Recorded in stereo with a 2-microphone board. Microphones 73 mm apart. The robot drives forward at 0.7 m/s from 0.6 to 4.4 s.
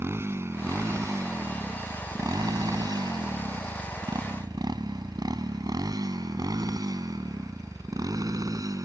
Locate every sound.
0.0 s a motorcycle: 35° right (ahead or behind); by 8.9 s 55° right (ahead or behind)